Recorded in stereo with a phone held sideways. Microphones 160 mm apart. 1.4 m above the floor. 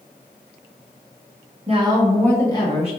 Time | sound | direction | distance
1.7 | a woman speaking | 40° right (ahead or behind) | 0.7 m